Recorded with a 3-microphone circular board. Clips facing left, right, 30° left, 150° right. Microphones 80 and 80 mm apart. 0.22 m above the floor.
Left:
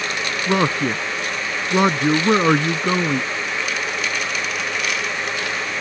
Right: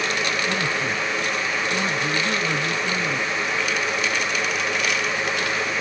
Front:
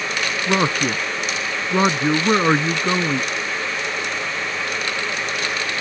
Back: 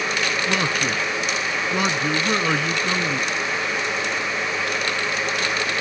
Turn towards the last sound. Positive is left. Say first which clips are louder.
# left 5 dB, front 3 dB
turn(degrees=85)